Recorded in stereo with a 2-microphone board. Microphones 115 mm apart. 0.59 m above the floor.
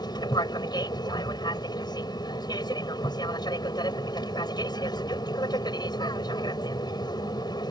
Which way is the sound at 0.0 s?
35° left (ahead or behind).